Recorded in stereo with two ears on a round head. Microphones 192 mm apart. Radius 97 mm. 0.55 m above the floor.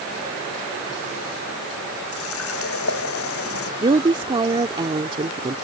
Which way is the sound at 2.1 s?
80° left.